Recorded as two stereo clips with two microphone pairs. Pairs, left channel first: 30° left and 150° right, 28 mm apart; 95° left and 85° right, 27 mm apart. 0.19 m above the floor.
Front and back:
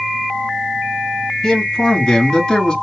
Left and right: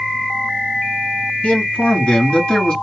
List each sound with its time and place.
1.4 s a man speaking: 100° left, 2.0 m; by 2.7 s 75° left, 1.6 m